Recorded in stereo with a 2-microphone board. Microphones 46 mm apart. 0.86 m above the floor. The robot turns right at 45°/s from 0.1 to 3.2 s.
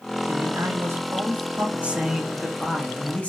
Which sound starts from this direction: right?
A man speaking, at 0.3 s.